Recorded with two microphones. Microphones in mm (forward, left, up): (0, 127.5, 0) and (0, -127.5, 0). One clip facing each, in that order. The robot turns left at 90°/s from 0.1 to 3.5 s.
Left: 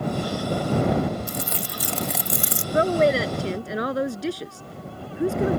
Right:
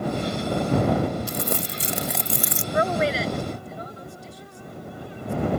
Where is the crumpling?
105° right; by 2.6 s 135° left.